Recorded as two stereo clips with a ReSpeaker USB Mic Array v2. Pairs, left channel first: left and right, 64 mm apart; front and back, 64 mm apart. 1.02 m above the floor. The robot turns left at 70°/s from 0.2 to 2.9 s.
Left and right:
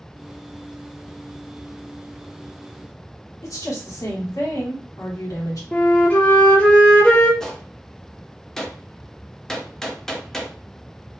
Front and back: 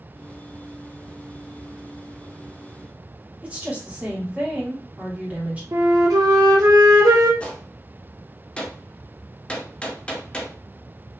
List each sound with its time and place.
3.4 s a woman speaking: 110° left, 1.8 m
5.7 s a flute: 160° left, 1.0 m
7.4 s a gunshot: 30° left, 0.7 m